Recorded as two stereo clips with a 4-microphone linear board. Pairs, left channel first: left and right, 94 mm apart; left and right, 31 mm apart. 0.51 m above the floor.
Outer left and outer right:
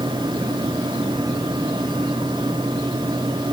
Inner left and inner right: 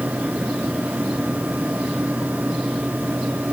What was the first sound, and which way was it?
Only background noise.